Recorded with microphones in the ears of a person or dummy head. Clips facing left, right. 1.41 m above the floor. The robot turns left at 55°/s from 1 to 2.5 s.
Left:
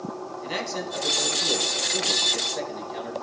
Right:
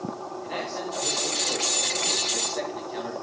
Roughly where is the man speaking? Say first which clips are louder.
Left 1 dB; left.